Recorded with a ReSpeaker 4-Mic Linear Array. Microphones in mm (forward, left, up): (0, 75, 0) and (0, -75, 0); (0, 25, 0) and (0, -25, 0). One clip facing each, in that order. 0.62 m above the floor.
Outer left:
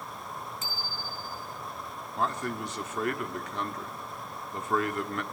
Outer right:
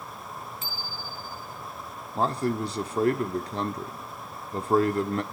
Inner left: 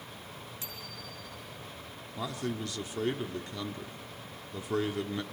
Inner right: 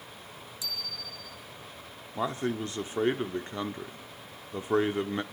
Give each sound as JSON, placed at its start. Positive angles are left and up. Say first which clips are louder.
{"t": 0.6, "sound": "a bicycle bell", "louder": "even, inner right 4 dB", "side_deg": 45, "distance_m": 6.0}
{"t": 2.1, "sound": "a man speaking", "louder": "outer right 5 dB, inner right 5 dB", "side_deg": -35, "distance_m": 1.0}